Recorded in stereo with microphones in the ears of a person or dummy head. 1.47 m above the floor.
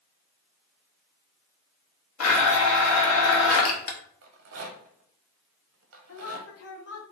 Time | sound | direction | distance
2.2 | a blender | 85° left | 0.8 m
4.2 | a rattle | 70° right (ahead or behind) | 0.6 m
6.1 | a woman speaking | 80° left | 1.0 m